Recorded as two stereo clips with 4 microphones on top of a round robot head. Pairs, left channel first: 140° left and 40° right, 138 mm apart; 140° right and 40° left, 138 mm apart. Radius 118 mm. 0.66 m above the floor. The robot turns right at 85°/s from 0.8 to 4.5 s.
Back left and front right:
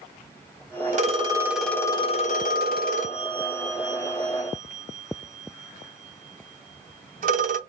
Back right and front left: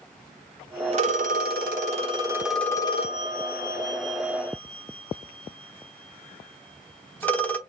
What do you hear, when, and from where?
0.9 s a phone ringing: 5° right, 0.9 m; by 7.6 s 65° right, 0.9 m